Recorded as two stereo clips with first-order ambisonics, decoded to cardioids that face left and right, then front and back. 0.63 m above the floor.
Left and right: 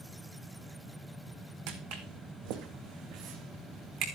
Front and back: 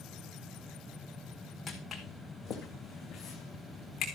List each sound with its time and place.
1.7 s footsteps: 85° right, 2.5 m; by 4.0 s 60° right, 3 m